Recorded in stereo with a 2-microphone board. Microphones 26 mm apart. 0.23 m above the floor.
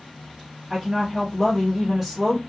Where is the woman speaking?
5° right (ahead or behind), 1.1 m.